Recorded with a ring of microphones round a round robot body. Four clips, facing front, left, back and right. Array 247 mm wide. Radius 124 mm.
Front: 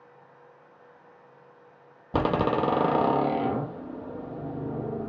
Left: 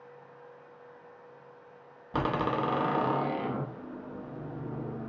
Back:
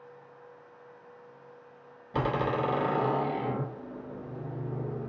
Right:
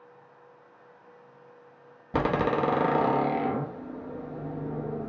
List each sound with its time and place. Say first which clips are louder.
2.1 s a door slam: right 4 dB, front 5 dB; 25° right, 0.6 m